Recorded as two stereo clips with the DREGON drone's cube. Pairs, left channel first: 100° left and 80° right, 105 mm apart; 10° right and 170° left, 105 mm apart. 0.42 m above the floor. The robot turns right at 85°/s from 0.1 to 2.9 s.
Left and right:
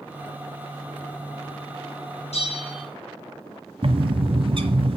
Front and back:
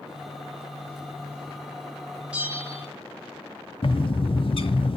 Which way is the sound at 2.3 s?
90° left.